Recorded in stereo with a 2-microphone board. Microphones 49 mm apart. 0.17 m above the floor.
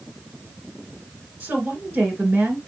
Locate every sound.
1.4 s a woman speaking: 40° right (ahead or behind), 2 m